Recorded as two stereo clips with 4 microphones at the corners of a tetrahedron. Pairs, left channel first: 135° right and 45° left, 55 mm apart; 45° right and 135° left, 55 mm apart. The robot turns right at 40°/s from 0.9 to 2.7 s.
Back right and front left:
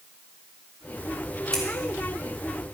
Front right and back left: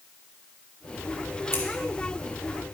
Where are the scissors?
65° right, 2 m; by 1.6 s 60° right, 2 m.